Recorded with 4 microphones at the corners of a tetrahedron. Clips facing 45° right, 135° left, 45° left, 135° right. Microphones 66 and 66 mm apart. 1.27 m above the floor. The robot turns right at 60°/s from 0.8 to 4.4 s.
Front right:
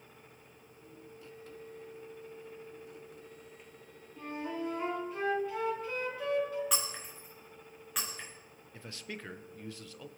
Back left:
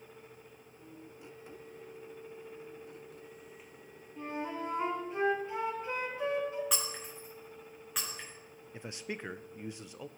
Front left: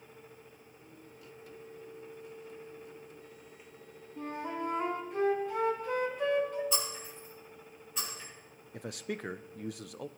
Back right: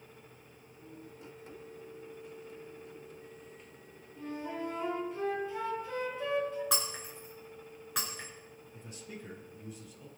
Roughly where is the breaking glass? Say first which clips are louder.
Front right 1 dB, even; behind right.